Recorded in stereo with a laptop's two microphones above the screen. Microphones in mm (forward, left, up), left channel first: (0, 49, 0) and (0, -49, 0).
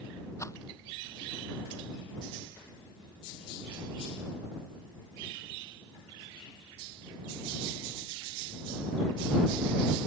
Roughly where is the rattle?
Left.